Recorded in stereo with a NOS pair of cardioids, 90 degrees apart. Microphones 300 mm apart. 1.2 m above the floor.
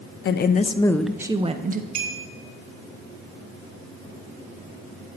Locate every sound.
0.2 s a woman speaking: 40° left, 0.8 m; by 1.9 s 30° right, 0.9 m
1.9 s a clink: 65° right, 3 m